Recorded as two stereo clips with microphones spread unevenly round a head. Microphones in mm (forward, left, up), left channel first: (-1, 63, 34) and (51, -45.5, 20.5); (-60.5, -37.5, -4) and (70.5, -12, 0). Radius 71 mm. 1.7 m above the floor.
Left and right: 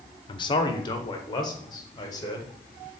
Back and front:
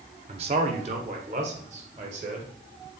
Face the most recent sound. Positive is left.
turn(degrees=55)